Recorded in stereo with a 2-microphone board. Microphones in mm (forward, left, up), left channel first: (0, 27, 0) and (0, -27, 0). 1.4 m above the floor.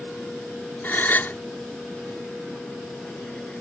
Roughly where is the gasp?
Left.